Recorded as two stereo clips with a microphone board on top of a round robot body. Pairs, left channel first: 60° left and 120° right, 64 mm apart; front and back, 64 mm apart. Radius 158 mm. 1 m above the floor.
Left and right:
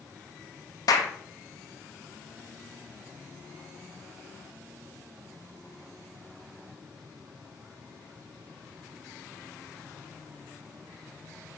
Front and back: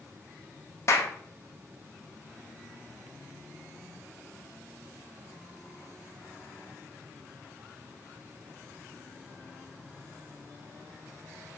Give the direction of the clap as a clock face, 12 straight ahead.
11 o'clock.